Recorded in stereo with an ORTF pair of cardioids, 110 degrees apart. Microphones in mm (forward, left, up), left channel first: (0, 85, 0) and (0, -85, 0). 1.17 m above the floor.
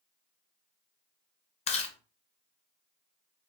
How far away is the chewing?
About 0.6 m.